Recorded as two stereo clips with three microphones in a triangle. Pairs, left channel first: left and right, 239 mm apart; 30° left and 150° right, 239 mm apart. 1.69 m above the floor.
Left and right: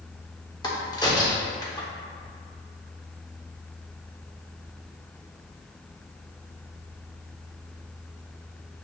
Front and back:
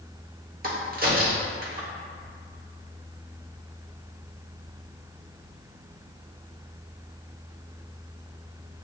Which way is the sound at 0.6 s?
165° left.